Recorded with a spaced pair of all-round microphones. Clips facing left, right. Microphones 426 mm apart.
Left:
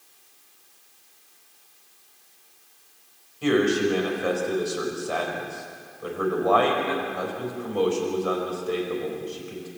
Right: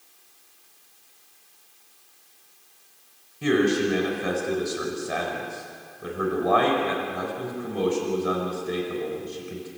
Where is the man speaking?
40° right (ahead or behind), 4.5 m.